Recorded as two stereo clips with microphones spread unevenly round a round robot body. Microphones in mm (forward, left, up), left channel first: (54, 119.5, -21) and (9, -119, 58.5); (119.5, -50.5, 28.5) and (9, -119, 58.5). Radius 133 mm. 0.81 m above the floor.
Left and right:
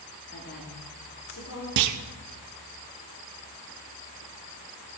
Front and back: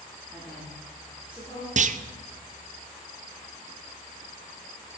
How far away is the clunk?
About 0.6 m.